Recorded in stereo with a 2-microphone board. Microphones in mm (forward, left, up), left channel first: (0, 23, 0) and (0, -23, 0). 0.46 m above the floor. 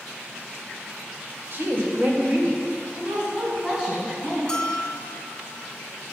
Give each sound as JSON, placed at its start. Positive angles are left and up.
{"t": 1.5, "sound": "a woman speaking", "side_deg": -55, "distance_m": 1.9}
{"t": 4.5, "sound": "a bell", "side_deg": 15, "distance_m": 0.8}